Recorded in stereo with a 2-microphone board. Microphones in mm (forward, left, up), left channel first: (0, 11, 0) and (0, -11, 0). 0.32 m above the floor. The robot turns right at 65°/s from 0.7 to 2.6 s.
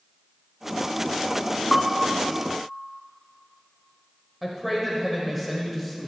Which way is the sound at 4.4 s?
5° right (ahead or behind).